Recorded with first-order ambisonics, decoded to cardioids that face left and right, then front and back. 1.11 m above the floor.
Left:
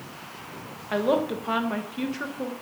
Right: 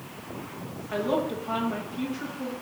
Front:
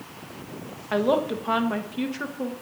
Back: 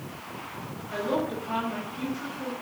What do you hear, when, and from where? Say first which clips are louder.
0.9 s a woman speaking: left 3 dB, front 6 dB; 35° left, 0.9 m